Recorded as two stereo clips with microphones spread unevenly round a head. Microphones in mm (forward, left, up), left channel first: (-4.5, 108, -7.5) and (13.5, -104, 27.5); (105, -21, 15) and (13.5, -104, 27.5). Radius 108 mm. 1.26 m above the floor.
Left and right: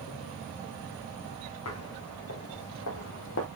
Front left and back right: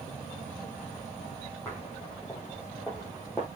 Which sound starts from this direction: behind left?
Footsteps, at 1.6 s.